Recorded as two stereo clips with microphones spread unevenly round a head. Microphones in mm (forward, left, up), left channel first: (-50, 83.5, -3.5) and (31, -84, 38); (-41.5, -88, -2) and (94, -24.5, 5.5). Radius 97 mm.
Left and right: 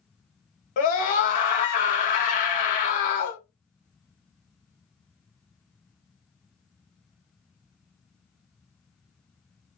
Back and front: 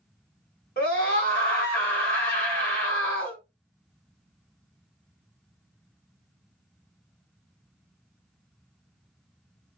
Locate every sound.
0.8 s a scream: 160° left, 1.3 m